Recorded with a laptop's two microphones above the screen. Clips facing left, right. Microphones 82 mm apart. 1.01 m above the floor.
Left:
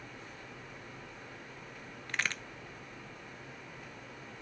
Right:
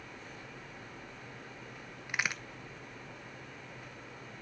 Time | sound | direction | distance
2.1 | a crack | 10° right (ahead or behind) | 0.9 m